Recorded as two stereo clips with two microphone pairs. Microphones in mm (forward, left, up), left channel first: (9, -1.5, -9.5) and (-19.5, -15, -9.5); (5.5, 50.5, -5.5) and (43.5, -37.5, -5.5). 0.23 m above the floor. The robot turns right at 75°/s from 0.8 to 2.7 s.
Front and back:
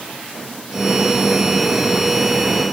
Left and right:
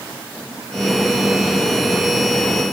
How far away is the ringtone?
I don't hear a ringtone.